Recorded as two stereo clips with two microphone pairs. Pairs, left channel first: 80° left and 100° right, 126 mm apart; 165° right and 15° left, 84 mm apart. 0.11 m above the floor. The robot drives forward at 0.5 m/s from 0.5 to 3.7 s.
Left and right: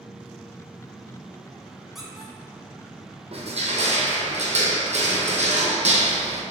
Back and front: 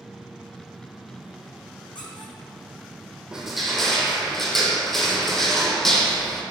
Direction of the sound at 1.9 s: 170° left.